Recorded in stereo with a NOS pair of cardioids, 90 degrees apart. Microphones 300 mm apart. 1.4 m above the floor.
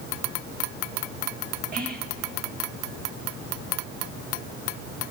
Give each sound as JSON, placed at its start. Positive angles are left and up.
{"t": 1.7, "sound": "whispering", "azimuth_deg": -30, "distance_m": 2.0}